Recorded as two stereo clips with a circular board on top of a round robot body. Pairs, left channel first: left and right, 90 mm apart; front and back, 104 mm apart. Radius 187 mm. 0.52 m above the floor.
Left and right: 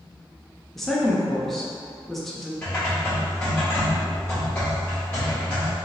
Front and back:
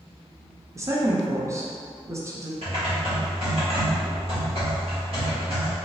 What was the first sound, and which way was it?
A woman speaking, 175° left.